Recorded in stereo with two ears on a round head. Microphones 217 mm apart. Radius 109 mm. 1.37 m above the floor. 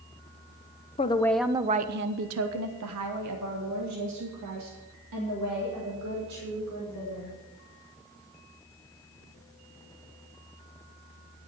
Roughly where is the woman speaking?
Left.